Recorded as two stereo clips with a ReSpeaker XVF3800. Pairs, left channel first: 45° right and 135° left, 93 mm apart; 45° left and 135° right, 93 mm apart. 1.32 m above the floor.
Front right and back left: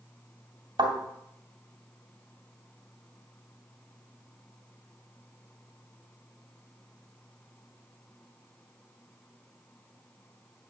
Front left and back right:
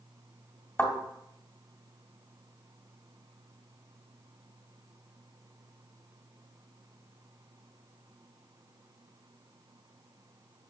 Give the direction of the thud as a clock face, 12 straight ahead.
8 o'clock.